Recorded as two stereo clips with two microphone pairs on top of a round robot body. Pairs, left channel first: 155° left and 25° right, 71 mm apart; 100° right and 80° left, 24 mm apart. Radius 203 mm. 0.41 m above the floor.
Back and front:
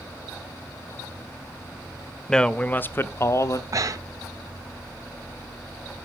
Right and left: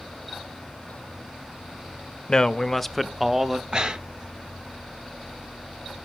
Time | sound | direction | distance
2.3 | a man speaking | 130° right | 0.8 m
3.7 | breathing | 20° left | 0.5 m